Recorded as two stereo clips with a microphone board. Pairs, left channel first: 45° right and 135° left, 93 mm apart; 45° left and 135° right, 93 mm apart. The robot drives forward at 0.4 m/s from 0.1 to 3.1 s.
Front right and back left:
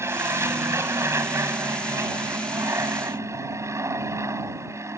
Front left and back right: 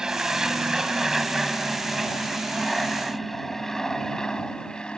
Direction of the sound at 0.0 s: 150° left.